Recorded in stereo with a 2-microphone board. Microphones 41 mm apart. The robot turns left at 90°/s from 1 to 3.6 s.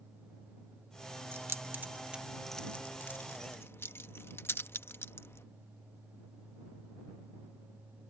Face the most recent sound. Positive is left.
turn(degrees=65)  # may be behind; listen again after turning